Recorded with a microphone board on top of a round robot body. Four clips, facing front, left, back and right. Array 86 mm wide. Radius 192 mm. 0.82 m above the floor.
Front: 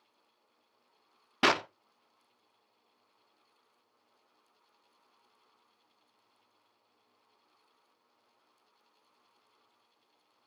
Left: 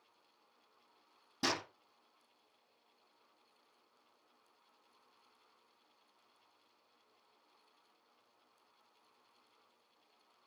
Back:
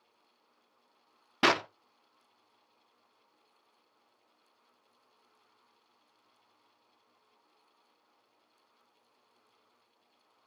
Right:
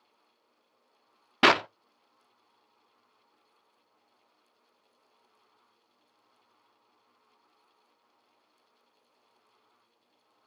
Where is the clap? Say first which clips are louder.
Right 16 dB, back 1 dB; 90° right, 0.6 m.